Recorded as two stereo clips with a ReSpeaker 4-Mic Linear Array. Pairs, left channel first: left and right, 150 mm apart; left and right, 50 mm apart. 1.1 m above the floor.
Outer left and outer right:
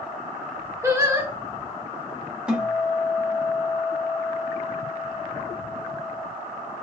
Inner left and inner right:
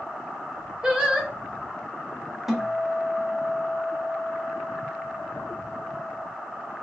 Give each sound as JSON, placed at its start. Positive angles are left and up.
{"t": 0.8, "sound": "singing", "side_deg": -20, "distance_m": 0.8}
{"t": 2.5, "sound": "a guitar", "side_deg": -5, "distance_m": 1.0}